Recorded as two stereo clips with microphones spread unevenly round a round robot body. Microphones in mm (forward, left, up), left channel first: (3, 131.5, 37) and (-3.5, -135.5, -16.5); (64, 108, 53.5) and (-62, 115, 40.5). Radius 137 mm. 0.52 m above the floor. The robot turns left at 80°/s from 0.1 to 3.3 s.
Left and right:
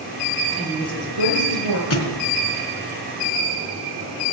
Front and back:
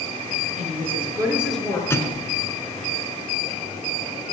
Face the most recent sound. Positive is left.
turn(degrees=-40)